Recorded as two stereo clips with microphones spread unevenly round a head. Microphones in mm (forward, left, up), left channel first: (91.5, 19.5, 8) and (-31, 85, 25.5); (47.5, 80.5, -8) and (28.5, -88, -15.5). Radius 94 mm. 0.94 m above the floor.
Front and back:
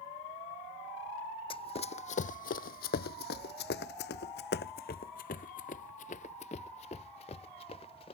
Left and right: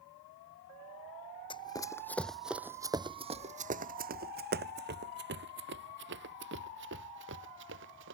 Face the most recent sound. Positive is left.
turn(degrees=-90)